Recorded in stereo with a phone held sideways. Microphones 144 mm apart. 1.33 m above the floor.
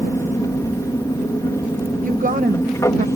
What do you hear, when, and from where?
0.0 s an aircraft: 20° left (ahead or behind)
2.0 s a woman speaking: 65° right (ahead or behind)